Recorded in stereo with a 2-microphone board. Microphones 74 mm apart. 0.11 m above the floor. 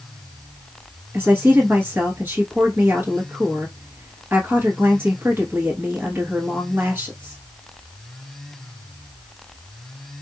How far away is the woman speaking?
About 1.4 m.